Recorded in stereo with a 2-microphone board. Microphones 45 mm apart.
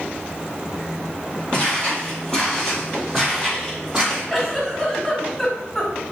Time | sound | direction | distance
1.5 | footsteps | 25° left (ahead or behind) | 1.8 m
4.3 | a giggle | 5° left (ahead or behind) | 1.3 m